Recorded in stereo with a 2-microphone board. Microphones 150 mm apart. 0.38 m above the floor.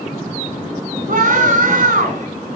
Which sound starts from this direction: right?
A scream, at 1.1 s.